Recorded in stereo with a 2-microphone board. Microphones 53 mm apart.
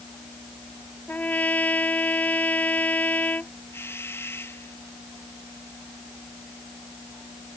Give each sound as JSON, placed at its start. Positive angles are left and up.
{"t": 1.1, "sound": "a trumpet", "side_deg": 30}
{"t": 3.7, "sound": "a doorbell", "side_deg": 50}